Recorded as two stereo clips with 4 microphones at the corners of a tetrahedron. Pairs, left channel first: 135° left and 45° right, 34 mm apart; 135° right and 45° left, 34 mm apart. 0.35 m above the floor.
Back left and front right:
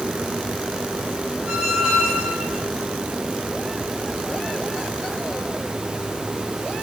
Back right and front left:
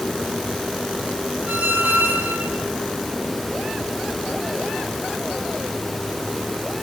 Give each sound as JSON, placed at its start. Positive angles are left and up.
{"t": 1.5, "sound": "a squeak", "azimuth_deg": 25, "distance_m": 2.5}